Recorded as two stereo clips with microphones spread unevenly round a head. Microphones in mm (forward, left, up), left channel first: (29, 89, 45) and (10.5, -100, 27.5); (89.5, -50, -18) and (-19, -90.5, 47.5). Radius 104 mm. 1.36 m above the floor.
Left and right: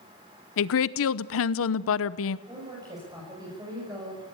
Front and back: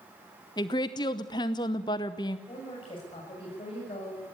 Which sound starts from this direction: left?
A woman speaking, at 0.6 s.